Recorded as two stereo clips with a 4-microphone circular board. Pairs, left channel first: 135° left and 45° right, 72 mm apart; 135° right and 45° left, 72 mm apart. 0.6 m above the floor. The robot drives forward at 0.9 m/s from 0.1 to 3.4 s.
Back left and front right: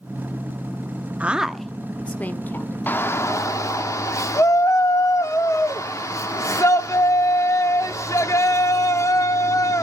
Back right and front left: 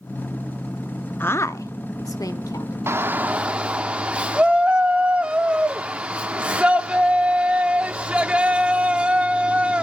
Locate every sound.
1.2 s a woman speaking: 100° right, 0.6 m; by 2.8 s 165° right, 1.6 m
2.9 s a shout: 85° left, 1.1 m; by 9.8 s 115° left, 1.1 m